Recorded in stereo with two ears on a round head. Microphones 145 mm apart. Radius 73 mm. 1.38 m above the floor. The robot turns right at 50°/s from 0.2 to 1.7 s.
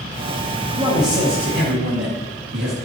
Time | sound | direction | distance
0.8 | a man speaking | 150° right | 2.5 m